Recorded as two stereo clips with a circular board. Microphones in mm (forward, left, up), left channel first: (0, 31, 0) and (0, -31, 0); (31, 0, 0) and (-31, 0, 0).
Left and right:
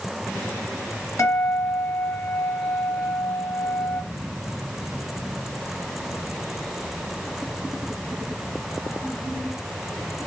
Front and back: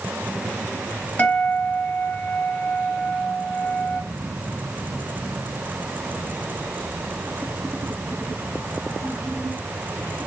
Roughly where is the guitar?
Ahead left.